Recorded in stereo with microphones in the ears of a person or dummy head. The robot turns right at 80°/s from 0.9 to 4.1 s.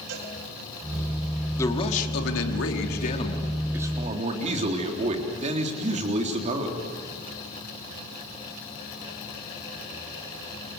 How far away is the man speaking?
About 3.5 m.